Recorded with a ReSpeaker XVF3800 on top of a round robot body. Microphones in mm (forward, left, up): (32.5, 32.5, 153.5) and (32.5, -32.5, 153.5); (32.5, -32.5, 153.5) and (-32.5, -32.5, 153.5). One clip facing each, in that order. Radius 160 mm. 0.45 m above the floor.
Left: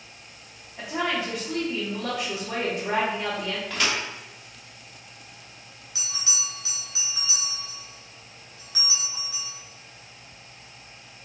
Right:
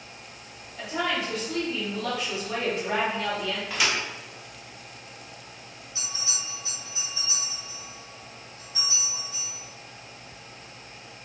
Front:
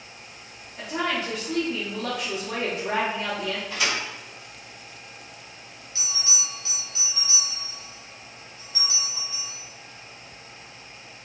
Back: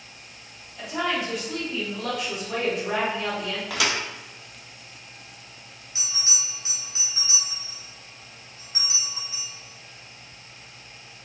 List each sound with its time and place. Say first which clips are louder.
0.8 s a woman speaking: left 1 dB, even; 30° left, 1.1 m
3.7 s a thud: even, back 3 dB; 170° right, 0.8 m
6.0 s a bell: left 2 dB, front 1 dB; 110° left, 0.7 m